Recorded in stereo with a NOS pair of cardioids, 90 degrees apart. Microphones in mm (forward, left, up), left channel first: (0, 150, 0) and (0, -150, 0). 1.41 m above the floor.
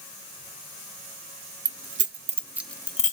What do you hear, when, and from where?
1.6 s keys jangling: 55° right, 1.1 m; by 3.1 s 30° left, 0.8 m